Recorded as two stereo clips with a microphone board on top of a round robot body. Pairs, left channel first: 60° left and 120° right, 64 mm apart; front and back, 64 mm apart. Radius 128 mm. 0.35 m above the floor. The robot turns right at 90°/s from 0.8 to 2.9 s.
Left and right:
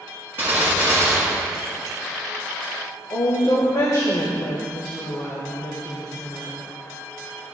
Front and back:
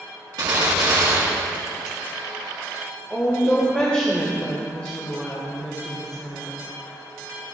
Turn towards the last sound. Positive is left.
turn(degrees=70)